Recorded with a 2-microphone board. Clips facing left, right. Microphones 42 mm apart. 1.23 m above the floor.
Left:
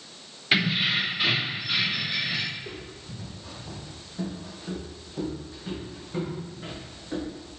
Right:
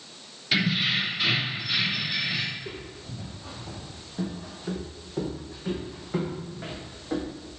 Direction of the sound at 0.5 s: 25° left (ahead or behind).